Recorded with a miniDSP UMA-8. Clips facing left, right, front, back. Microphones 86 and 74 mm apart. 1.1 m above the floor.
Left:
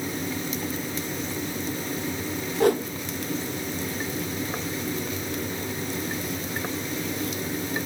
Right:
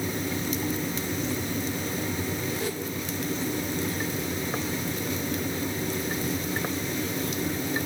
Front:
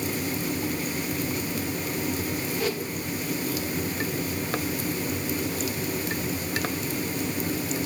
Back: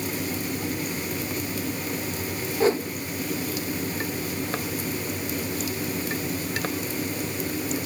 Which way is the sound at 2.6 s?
125° left.